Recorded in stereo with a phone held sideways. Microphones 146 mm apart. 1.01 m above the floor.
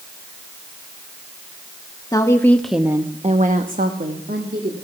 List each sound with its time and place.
2.1 s a woman speaking: 25° left (ahead or behind), 1.4 m; by 4.7 s 80° right, 2 m